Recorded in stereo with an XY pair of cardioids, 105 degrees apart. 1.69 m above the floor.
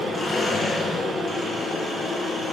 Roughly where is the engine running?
Ahead left.